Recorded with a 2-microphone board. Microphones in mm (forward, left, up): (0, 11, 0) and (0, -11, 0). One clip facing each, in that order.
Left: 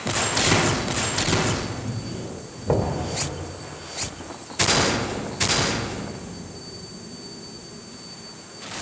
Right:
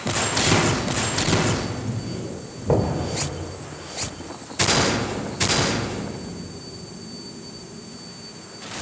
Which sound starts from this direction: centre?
Knocking, at 2.7 s.